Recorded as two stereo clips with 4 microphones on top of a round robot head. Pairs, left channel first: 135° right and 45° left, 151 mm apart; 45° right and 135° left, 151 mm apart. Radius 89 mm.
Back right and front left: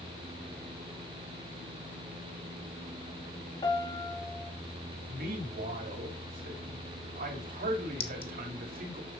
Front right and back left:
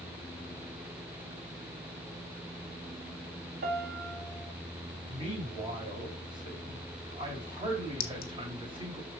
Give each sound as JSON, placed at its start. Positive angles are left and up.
{"t": 3.6, "sound": "a piano", "azimuth_deg": 165, "distance_m": 1.5}
{"t": 5.1, "sound": "a man speaking", "azimuth_deg": 75, "distance_m": 3.0}
{"t": 8.0, "sound": "a clink", "azimuth_deg": -75, "distance_m": 1.2}